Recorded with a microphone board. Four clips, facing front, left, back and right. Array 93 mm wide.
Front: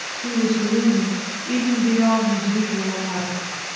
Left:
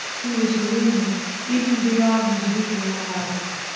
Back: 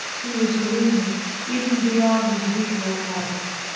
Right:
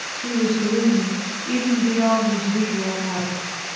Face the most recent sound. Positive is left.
turn(degrees=-70)